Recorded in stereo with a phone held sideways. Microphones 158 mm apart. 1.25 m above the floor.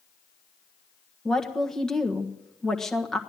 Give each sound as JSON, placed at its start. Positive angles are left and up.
{"t": 1.2, "sound": "a woman speaking", "side_deg": 5, "distance_m": 1.4}